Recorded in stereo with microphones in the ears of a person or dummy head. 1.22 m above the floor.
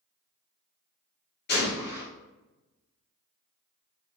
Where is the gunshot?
50° left (ahead or behind), 1.1 m.